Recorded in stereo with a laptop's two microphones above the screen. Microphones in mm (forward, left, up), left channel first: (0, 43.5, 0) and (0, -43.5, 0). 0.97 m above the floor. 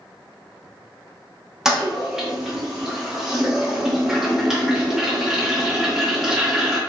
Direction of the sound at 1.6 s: 5° right (ahead or behind).